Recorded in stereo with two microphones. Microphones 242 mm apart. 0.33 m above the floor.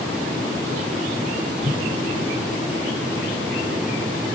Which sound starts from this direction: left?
A whoosh, at 1.6 s.